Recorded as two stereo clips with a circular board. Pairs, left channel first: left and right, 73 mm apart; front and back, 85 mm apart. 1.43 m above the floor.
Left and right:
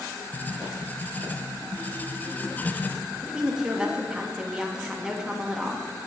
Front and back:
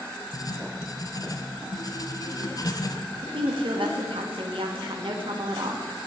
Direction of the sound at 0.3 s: 25° left.